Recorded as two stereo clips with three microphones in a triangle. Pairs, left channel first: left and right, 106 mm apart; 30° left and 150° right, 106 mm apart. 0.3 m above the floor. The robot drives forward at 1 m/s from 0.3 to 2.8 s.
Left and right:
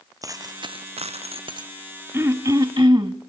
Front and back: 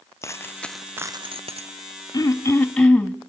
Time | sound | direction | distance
0.2 | a dropped coin | 35° right | 0.9 m
2.1 | throat clearing | 25° right | 1.2 m